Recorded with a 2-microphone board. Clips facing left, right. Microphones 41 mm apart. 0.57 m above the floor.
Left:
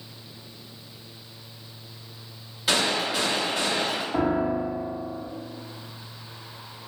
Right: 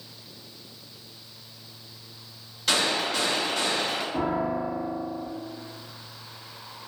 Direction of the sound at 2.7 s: 5° left (ahead or behind).